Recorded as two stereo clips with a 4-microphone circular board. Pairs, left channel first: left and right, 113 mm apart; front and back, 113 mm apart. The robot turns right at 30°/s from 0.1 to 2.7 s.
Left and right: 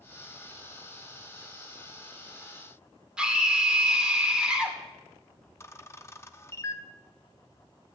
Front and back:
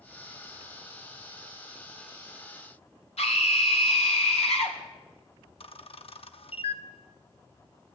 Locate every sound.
3.2 s a scream: 10° right, 2.5 m
5.6 s a camera shutter: 25° left, 0.6 m